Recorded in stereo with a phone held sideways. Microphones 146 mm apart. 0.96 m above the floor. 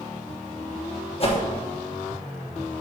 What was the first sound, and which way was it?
A whoosh, 40° left (ahead or behind).